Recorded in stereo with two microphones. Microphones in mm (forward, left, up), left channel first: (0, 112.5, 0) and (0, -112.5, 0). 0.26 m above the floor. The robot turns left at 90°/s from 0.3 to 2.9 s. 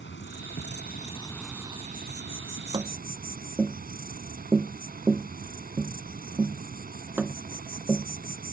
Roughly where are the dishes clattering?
I don't hear dishes clattering.